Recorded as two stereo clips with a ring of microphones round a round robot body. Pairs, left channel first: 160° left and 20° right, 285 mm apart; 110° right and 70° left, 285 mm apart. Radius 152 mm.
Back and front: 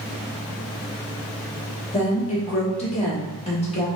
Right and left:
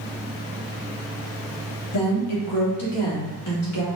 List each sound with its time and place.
1.9 s a woman speaking: 135° right, 2 m